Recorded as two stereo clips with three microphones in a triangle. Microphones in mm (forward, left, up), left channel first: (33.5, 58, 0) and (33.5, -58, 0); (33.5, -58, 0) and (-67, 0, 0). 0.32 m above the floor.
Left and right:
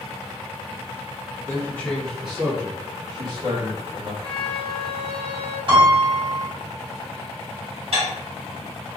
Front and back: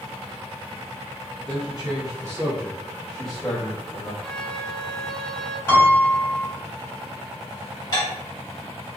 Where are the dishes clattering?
75° right, 1.4 m.